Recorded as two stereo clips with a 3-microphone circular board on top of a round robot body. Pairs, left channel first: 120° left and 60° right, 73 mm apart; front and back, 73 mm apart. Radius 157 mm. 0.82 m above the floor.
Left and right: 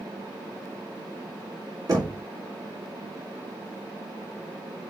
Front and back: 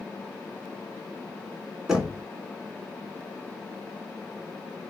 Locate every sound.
1.9 s knocking: 100° right, 3 m